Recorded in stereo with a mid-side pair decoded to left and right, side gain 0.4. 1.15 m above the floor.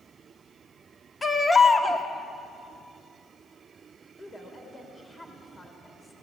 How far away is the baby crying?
About 1.7 m.